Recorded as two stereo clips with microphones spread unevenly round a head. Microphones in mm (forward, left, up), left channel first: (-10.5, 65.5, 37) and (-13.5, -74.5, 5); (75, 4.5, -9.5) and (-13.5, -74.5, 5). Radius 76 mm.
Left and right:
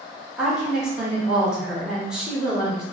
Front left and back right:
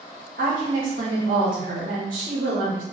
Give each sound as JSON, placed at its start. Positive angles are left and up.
{"t": 0.4, "sound": "a woman speaking", "azimuth_deg": -170, "distance_m": 0.8}